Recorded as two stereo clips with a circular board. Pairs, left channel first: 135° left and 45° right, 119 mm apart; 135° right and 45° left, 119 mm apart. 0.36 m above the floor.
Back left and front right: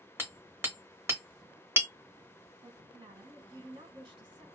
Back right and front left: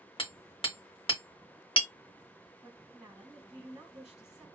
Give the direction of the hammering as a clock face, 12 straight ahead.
4 o'clock.